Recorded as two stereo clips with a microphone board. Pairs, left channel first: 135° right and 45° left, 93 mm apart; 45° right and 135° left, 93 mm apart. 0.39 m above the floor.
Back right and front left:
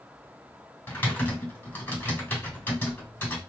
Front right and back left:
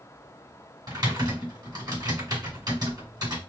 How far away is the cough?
I don't hear a cough.